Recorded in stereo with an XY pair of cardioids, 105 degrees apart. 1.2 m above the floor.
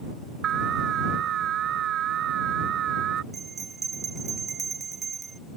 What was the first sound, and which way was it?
An alarm, 65° right.